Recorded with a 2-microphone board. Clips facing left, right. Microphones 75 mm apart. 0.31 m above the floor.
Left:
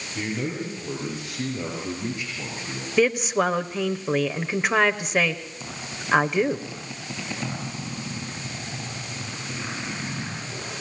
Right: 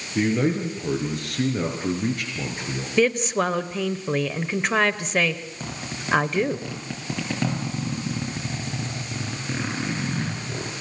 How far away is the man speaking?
About 6 m.